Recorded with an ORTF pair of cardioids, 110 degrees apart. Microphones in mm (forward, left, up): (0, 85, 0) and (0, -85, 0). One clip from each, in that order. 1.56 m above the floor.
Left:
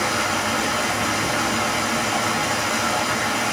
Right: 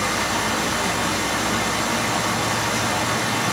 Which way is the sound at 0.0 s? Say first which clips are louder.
Even; 10° left.